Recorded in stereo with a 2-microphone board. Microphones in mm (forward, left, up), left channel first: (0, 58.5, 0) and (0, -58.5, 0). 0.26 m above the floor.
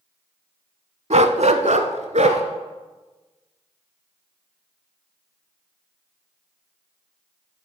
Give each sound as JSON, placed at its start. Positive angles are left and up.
{"t": 1.1, "sound": "a dog barking", "side_deg": -65, "distance_m": 0.6}